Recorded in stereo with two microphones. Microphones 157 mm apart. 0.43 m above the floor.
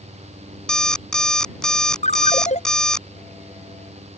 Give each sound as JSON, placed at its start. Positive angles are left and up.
{"t": 0.7, "sound": "an alarm clock", "side_deg": 5}
{"t": 2.0, "sound": "a ringtone", "side_deg": 45}